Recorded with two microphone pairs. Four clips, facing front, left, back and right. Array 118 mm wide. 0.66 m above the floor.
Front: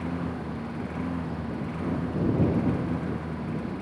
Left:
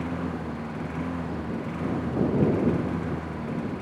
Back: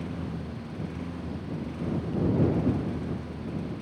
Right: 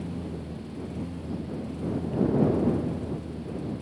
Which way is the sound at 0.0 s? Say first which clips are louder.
Left 5 dB, front 4 dB; 65° left.